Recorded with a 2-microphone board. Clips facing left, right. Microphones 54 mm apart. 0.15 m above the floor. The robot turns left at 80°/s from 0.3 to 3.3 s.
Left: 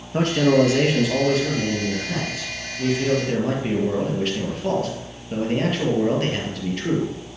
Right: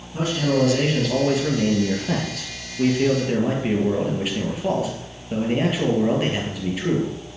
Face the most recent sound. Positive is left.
turn(degrees=-170)